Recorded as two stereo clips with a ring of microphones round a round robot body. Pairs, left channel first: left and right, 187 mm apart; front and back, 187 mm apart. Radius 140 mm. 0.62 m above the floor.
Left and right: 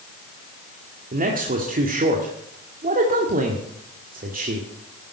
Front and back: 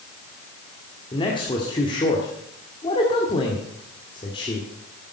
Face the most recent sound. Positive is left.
turn(degrees=-60)